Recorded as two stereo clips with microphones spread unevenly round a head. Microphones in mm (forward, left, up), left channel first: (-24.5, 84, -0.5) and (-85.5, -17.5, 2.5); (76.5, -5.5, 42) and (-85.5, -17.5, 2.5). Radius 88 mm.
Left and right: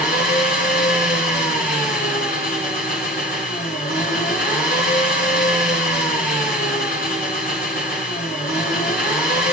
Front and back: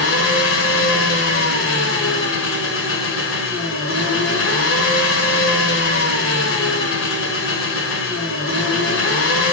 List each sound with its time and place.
0.0 s an engine running: 20° left, 3.5 m